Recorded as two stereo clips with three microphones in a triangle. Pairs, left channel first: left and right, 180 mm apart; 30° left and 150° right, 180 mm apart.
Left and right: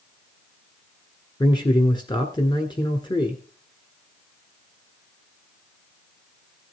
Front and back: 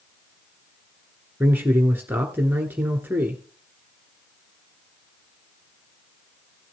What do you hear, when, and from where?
1.4 s a man speaking: 140° left, 1.3 m